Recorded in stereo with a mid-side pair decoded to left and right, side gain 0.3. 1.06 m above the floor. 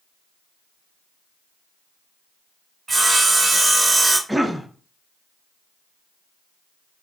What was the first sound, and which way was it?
Sawing, 50° right.